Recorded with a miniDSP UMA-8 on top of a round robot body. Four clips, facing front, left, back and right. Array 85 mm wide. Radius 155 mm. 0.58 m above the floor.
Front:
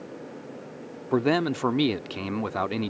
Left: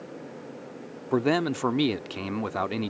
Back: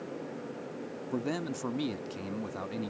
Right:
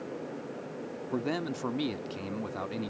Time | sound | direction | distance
1.1 | a man speaking | 35° left | ?